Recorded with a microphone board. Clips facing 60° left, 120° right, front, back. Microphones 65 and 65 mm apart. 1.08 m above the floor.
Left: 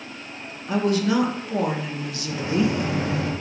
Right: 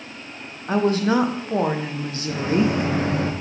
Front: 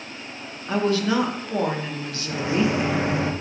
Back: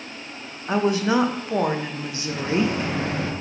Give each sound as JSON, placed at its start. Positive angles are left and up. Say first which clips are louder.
{"t": 0.7, "sound": "a woman speaking", "louder": "right 2 dB, back 1 dB", "azimuth_deg": -125, "distance_m": 0.5}
{"t": 2.3, "sound": "a microwave", "louder": "right 2 dB, front 1 dB", "azimuth_deg": -75, "distance_m": 0.6}